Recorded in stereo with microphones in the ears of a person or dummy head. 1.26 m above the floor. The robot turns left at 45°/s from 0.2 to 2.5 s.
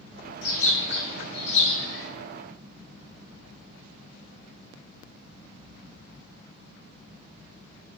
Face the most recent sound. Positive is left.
turn(degrees=-5)